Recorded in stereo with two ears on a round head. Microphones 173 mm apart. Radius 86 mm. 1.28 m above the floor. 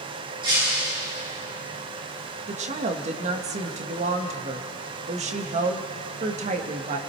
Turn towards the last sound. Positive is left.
turn(degrees=-35)  # may be behind; listen again after turning